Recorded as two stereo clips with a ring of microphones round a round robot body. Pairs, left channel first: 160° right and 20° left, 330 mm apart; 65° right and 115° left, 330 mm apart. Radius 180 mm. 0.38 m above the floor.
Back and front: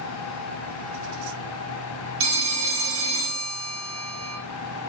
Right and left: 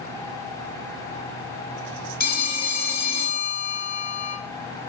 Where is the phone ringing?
10° right, 0.9 m.